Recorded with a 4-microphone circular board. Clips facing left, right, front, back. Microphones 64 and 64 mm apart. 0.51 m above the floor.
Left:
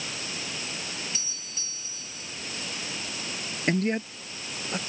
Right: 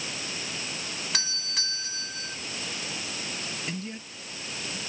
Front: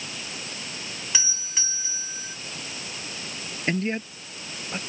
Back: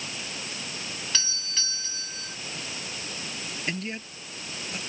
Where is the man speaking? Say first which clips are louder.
Left 11 dB, front 9 dB; 55° left.